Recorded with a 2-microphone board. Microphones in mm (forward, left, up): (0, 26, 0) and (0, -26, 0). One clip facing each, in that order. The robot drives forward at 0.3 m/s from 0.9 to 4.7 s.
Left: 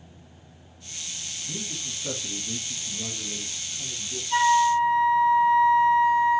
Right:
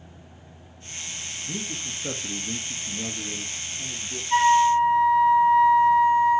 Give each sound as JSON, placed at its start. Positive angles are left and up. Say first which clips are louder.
{"t": 1.5, "sound": "a man speaking", "louder": "right 3 dB", "side_deg": -35, "distance_m": 1.3}
{"t": 4.3, "sound": "a flute", "louder": "right 2 dB", "side_deg": -25, "distance_m": 2.0}